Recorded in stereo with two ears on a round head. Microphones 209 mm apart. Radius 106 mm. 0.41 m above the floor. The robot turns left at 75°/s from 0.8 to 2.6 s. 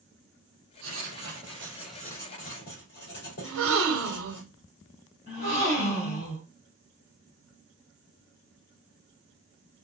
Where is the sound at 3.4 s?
65° right (ahead or behind), 1.4 m.